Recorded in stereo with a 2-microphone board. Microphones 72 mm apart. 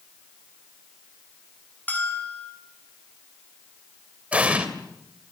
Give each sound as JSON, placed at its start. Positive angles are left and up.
{"t": 1.9, "sound": "a bell", "side_deg": 25, "distance_m": 7.0}
{"t": 4.3, "sound": "an explosion", "side_deg": -15, "distance_m": 2.5}